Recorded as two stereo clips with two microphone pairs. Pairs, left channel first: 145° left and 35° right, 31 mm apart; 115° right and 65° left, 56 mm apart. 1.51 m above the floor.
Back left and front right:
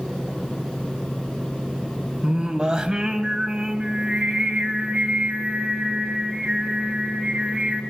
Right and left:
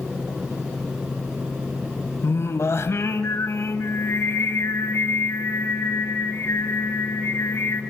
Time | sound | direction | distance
2.2 | singing | 90° right | 2.5 m